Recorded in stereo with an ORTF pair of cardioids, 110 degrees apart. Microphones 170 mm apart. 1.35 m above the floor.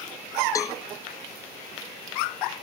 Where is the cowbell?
20° left, 0.6 m.